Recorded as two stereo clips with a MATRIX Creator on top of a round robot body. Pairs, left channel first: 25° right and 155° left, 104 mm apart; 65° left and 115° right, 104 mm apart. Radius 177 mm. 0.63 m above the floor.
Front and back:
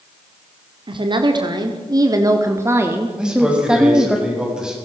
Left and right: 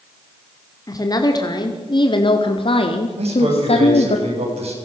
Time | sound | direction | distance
0.9 | a woman speaking | 120° left | 2 m
3.2 | a man speaking | 120° right | 6.5 m